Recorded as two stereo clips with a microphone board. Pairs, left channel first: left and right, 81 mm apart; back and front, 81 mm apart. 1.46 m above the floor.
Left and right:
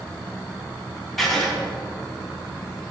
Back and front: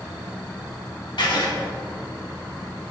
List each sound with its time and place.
1.2 s writing: straight behind, 1.3 m